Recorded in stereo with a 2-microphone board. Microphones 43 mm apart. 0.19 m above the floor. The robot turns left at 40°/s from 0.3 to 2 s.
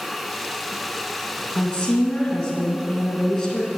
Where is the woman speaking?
30° left (ahead or behind), 1.8 m; by 3.7 s 15° left (ahead or behind), 1.8 m.